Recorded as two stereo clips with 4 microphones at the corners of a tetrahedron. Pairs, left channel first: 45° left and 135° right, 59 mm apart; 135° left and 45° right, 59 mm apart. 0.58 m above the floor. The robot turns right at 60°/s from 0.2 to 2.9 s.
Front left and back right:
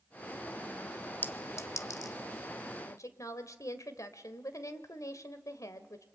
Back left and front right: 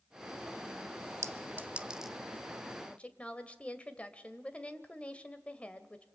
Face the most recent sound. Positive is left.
turn(degrees=70)